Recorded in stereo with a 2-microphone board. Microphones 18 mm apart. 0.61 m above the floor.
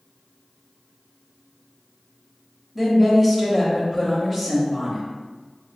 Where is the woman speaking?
15° right (ahead or behind), 0.8 m.